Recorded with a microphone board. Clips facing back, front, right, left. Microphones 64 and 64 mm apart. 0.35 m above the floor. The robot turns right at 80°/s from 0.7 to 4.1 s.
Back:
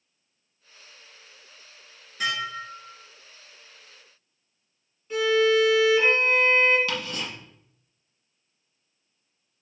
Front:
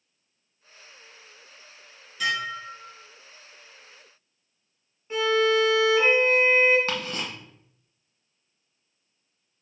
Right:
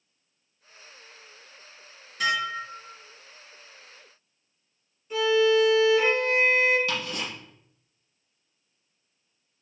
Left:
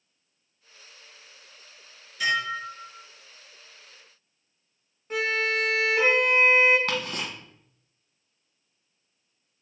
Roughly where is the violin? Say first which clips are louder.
Back 1 dB, right 6 dB; ahead left.